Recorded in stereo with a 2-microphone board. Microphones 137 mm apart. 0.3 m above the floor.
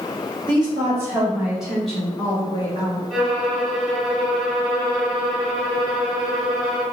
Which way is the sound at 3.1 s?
5° right (ahead or behind).